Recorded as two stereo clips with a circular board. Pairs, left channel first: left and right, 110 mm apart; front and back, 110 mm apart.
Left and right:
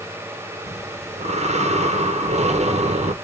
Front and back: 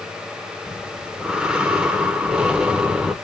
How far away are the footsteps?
No footsteps in this recording.